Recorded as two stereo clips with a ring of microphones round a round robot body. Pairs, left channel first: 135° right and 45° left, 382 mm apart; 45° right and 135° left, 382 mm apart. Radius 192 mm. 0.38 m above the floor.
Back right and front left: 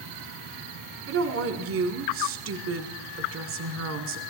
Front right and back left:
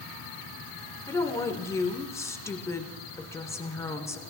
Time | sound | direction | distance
1.1 | a woman speaking | 30° left | 1.3 m